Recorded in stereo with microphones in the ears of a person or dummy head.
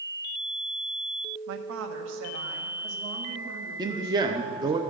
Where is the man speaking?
20° right (ahead or behind), 0.5 m.